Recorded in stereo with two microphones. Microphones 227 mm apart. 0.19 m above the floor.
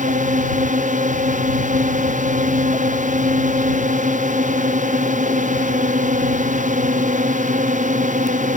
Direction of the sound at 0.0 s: 35° right (ahead or behind).